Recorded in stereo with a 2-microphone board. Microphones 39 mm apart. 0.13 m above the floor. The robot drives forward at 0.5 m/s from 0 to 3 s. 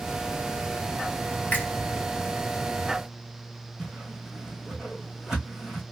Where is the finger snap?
35° left (ahead or behind), 2.0 m.